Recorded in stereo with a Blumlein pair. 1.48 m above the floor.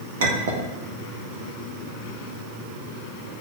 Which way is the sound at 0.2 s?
60° right.